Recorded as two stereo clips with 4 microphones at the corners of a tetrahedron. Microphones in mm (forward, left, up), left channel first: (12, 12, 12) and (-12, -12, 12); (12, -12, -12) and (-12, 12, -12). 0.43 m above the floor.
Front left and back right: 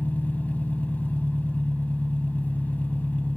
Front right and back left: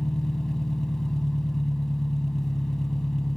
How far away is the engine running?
About 2.5 m.